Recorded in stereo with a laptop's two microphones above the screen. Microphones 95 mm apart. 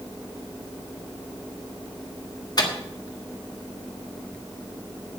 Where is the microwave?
45° left (ahead or behind), 1.5 m.